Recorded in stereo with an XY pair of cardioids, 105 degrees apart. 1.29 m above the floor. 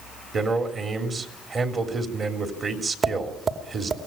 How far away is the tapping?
About 2.5 m.